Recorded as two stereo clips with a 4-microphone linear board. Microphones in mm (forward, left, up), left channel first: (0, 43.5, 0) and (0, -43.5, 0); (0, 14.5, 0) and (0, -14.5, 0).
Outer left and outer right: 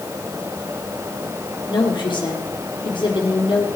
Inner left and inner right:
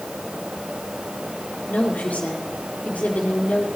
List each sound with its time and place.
1.7 s a woman speaking: 65° left (ahead or behind), 4 m